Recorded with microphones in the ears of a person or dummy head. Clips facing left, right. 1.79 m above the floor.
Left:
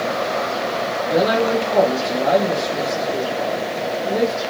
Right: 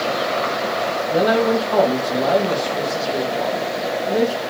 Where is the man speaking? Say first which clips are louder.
Right 1 dB; 10° left (ahead or behind), 1.4 m.